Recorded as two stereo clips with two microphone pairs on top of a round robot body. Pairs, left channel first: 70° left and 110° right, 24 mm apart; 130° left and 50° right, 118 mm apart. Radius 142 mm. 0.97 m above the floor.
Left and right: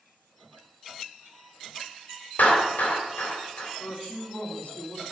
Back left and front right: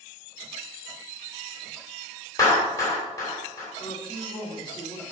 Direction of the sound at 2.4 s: 65° left.